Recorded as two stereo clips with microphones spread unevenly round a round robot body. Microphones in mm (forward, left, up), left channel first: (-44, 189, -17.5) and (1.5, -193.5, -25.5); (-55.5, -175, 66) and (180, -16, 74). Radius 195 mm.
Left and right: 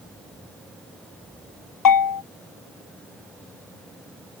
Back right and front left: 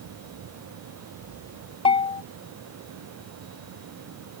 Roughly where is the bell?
Behind left.